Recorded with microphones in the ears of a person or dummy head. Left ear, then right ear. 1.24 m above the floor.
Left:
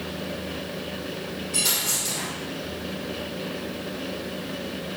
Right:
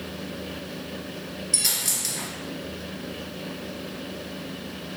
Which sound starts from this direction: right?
A dropped coin, at 1.5 s.